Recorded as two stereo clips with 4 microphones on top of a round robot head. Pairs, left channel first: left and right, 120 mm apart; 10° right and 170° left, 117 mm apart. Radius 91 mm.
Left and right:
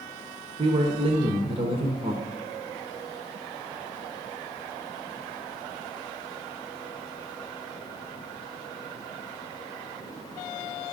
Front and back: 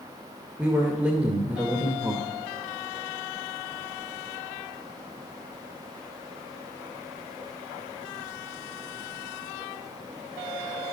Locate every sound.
0.6 s a man speaking: 110° right, 1.3 m